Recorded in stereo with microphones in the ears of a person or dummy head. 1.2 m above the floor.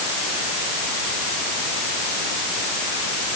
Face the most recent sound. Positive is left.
No sound to turn to.